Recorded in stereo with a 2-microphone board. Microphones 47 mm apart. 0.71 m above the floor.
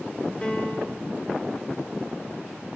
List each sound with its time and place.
0.4 s a piano: 25° left (ahead or behind), 1.3 m